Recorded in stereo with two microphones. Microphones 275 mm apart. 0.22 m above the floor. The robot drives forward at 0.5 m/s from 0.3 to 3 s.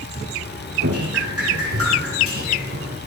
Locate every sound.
0.8 s dripping: 60° right (ahead or behind), 8.5 m; by 3.0 s 50° right (ahead or behind), 9 m